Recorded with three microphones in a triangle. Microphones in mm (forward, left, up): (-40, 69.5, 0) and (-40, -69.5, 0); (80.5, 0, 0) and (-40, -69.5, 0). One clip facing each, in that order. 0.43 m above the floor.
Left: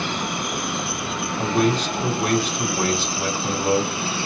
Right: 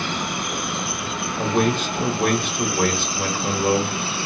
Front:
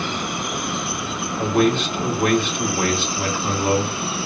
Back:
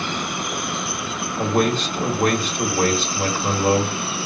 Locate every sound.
1.4 s a man speaking: 110° right, 1.5 m